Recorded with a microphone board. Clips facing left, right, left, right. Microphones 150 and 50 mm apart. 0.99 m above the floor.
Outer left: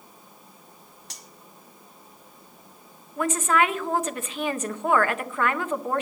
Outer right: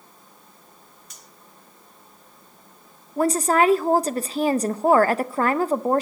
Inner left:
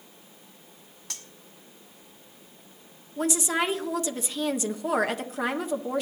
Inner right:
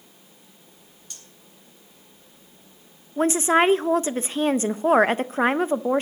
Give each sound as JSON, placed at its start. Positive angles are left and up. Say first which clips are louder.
{"t": 1.1, "sound": "cutlery clinking", "louder": "outer left 2 dB, inner left 5 dB", "side_deg": 75, "distance_m": 1.2}
{"t": 3.2, "sound": "a woman speaking", "louder": "outer right 4 dB, inner right 8 dB", "side_deg": -35, "distance_m": 0.6}